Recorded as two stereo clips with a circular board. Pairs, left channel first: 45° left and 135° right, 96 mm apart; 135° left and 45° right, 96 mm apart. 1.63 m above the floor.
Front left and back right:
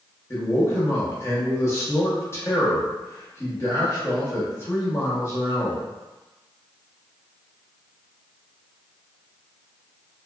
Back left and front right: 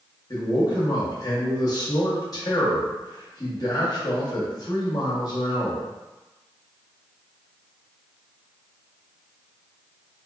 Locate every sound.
0.3 s a man speaking: 100° left, 0.9 m